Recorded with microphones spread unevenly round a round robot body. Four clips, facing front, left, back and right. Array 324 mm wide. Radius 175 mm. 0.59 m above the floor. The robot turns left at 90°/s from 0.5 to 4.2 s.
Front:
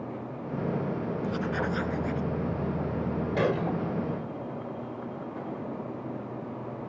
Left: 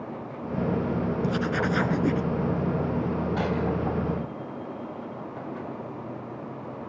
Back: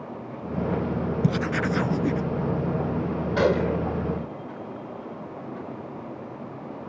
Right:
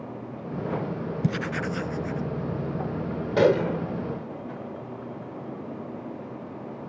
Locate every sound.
1.2 s writing: 155° right; by 2.2 s 115° left
3.4 s a gunshot: 100° right; by 3.9 s 145° right